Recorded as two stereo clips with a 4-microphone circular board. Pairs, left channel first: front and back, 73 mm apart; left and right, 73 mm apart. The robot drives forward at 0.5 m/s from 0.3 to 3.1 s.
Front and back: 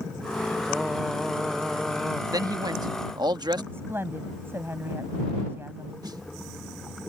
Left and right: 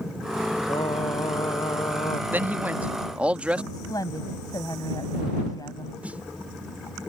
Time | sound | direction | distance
0.7 | singing | 90° left | ?
2.3 | a man speaking | 150° right | ?
3.7 | a woman speaking | 120° left | ?
6.0 | a snare drum | 160° right | ?